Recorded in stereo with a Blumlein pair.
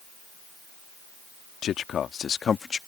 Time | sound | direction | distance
1.6 | a man speaking | 30° left | ?